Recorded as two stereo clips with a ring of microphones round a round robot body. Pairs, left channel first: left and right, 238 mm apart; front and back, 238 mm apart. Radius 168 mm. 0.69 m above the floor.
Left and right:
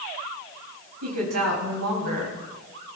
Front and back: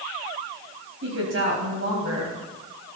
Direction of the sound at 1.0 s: 125° right.